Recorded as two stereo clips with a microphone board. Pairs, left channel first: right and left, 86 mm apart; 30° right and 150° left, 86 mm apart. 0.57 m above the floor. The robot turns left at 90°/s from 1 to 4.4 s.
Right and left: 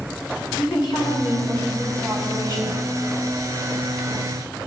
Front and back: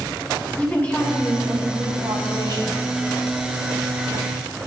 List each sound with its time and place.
0.6 s a woman speaking: 105° right, 4.5 m; by 2.8 s 95° left, 4.5 m